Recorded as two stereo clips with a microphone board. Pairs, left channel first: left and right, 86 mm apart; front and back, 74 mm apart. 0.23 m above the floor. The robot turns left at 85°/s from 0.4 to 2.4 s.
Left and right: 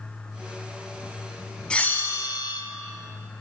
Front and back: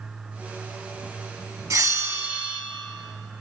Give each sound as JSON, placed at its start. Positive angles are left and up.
{"t": 1.7, "sound": "a bell", "azimuth_deg": 165, "distance_m": 0.8}